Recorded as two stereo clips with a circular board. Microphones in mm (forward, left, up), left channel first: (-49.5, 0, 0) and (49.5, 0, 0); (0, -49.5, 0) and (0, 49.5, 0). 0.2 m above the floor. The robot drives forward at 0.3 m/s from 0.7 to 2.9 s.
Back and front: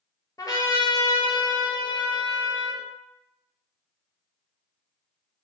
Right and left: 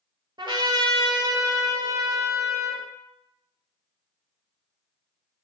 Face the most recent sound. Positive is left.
turn(degrees=150)